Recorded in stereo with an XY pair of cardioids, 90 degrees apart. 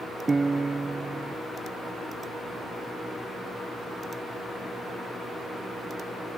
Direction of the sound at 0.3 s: 30° right.